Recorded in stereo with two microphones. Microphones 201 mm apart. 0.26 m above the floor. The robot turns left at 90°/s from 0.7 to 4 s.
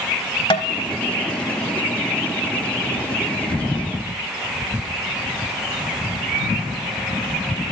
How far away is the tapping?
About 0.8 m.